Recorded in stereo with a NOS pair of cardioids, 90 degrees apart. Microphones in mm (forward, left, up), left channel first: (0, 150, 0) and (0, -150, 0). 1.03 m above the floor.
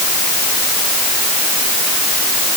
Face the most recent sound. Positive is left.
No sound to turn to.